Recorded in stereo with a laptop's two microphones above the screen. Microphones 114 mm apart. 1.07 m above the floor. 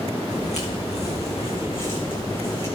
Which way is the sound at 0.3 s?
75° left (ahead or behind).